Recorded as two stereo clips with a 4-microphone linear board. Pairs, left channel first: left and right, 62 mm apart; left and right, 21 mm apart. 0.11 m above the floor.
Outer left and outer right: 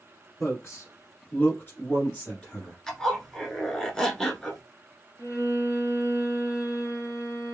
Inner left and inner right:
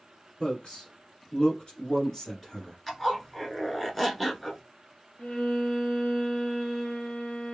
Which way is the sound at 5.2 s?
60° left (ahead or behind).